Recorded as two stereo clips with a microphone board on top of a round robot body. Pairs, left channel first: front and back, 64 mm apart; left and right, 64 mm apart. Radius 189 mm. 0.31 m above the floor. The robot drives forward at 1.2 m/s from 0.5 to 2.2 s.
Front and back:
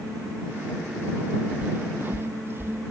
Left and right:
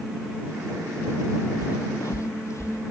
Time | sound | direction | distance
1.6 | footsteps | 110° left | ?